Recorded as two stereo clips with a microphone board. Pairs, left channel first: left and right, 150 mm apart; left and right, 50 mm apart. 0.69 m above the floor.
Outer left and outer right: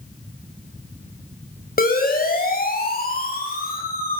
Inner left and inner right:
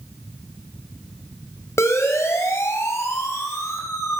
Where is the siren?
75° left (ahead or behind), 5.5 m; by 4.2 s 80° left, 8.5 m.